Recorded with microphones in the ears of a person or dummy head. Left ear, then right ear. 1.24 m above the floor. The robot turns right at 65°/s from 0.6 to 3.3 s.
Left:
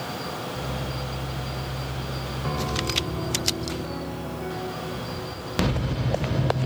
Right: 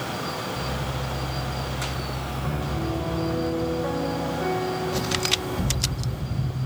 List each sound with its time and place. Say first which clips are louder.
2.4 s a piano: left 4 dB; 155° left, 1.0 m; by 6.6 s 150° right, 1.0 m